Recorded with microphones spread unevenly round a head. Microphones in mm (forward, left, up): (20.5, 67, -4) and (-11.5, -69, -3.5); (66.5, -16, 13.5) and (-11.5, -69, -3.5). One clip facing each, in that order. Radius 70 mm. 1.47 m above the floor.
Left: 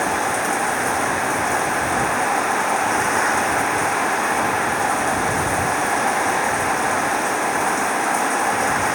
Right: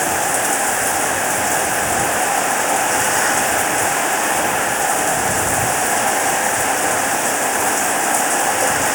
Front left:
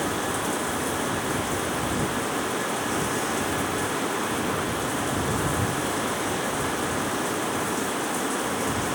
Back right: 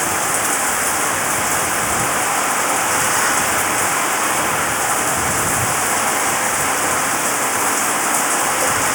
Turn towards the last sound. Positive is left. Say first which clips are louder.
# right 2 dB, back right 6 dB
turn(degrees=-155)